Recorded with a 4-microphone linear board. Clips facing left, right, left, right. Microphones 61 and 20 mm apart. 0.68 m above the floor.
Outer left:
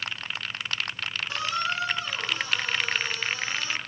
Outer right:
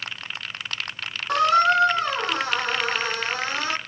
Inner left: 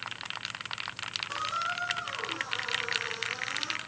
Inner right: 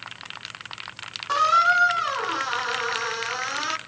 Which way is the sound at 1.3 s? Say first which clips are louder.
Outer right 13 dB, inner right 17 dB; 70° right (ahead or behind).